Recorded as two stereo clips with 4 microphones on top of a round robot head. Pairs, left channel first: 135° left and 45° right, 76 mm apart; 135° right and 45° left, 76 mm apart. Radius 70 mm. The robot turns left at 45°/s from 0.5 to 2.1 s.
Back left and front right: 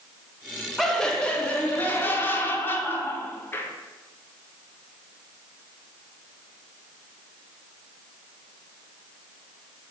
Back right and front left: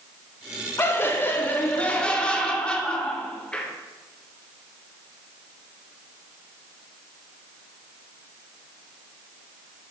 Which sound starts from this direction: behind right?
Laughter, at 0.8 s.